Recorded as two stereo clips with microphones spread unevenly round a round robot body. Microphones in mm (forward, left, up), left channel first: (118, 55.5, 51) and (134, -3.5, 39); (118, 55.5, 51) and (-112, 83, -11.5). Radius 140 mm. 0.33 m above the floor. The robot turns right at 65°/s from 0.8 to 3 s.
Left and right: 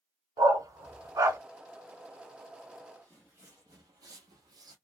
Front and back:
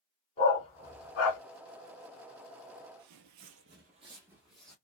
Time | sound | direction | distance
0.4 | a dog barking | 75° right | 0.6 m
3.0 | footsteps | 170° left | 0.6 m